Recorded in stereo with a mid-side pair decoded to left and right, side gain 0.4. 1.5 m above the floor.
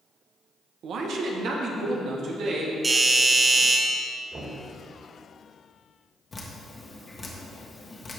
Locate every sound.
0.8 s a man speaking: 70° right, 1.1 m; by 2.7 s 75° right, 2.5 m
2.8 s a doorbell: 25° right, 2.5 m
4.3 s knocking: 35° right, 2.5 m
6.3 s dripping: 35° left, 1.6 m